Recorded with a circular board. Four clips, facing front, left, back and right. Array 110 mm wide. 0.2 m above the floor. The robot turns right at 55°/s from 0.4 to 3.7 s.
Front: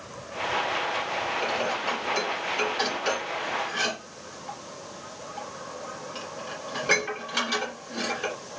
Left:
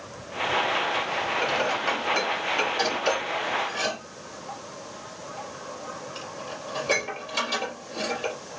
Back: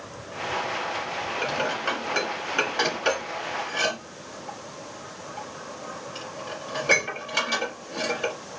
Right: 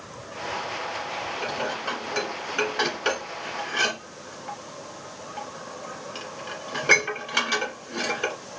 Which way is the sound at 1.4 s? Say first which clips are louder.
Left 3 dB, back 1 dB; 145° left.